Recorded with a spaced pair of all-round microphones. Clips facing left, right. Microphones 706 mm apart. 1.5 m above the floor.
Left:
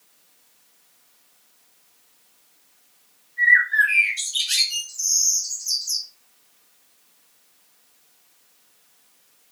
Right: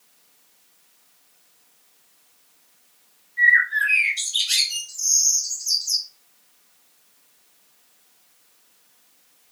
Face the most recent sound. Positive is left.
turn(degrees=-35)  # may be behind; listen again after turning